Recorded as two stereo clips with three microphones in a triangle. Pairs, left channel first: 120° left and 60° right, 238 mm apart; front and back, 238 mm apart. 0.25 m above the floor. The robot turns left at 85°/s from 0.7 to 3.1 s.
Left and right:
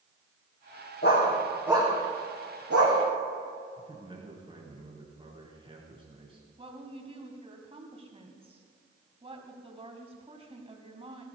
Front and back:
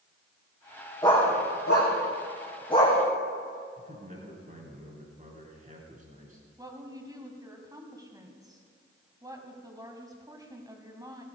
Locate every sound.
1.0 s a dog barking: 75° left, 4.5 m; by 3.0 s 90° right, 4.5 m
3.8 s a man speaking: 125° right, 3.5 m
6.6 s a woman speaking: 110° right, 2 m